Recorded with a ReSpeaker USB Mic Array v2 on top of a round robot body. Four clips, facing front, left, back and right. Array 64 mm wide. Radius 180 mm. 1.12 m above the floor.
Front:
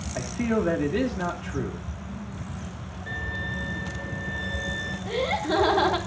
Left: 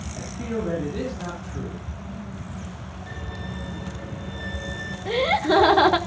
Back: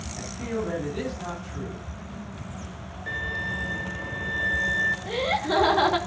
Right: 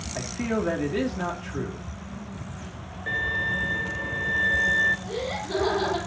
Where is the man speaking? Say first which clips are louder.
Right 2 dB, front 5 dB; 35° right, 3 m.